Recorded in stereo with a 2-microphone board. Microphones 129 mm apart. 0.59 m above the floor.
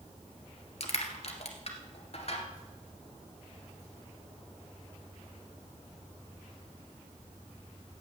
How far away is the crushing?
About 1.7 m.